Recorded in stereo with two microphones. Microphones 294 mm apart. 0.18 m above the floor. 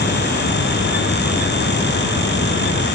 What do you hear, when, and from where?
Only background noise.